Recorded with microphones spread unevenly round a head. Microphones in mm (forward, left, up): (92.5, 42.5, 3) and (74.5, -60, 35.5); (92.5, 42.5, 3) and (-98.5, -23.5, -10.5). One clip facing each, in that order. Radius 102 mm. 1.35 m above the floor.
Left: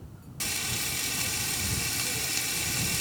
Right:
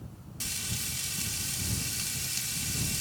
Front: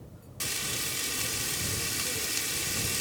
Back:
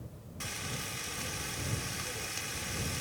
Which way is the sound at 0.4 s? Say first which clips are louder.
Left 5 dB, front 3 dB; 55° left.